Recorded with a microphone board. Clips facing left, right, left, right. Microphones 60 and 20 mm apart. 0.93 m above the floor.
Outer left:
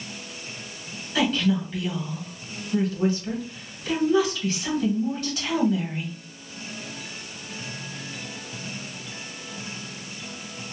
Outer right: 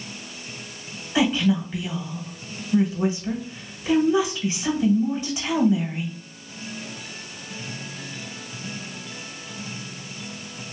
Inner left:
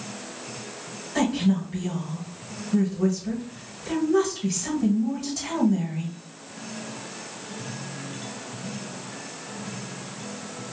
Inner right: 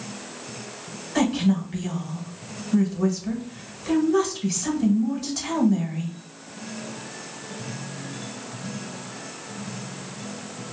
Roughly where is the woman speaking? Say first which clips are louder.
Outer right 2 dB, inner right 1 dB; centre.